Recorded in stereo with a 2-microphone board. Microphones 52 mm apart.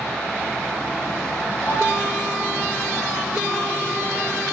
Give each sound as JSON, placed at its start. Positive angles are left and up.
{"t": 1.7, "sound": "a piano", "side_deg": 70, "distance_m": 6.0}